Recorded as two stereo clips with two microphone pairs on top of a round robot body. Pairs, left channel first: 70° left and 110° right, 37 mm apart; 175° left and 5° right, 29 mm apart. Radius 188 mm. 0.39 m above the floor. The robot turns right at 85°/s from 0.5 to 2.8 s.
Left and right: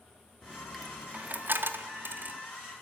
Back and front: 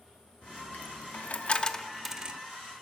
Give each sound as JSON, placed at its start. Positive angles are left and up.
{"t": 0.4, "sound": "a dropped coin", "azimuth_deg": 140, "distance_m": 0.6}